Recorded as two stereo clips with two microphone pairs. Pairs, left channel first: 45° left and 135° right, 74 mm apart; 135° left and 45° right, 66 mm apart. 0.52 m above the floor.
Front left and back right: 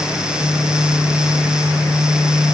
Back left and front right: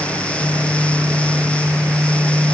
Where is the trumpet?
No trumpet in this recording.